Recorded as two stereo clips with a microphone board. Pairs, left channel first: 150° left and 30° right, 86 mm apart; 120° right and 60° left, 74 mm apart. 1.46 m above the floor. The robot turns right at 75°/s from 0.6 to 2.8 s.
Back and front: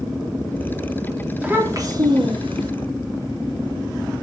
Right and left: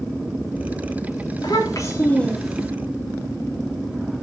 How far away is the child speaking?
About 3 m.